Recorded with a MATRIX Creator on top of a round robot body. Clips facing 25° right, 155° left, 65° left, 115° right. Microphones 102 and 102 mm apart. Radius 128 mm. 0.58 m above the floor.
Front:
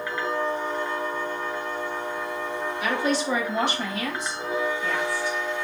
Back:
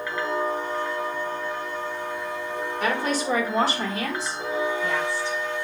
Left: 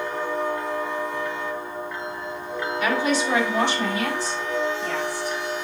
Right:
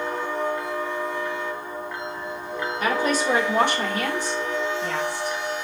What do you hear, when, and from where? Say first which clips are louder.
2.8 s a woman speaking: even, even; 165° right, 1.6 m; by 5.4 s 140° right, 2.5 m